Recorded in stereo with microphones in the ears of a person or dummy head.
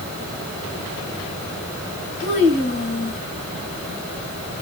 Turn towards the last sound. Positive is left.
turn(degrees=70)  # may be behind; listen again after turning